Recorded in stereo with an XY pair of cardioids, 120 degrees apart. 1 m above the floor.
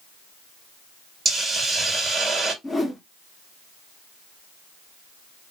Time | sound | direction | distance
1.2 | a hiss | 35° right | 1.4 m
2.6 | a whoosh | 10° left | 0.8 m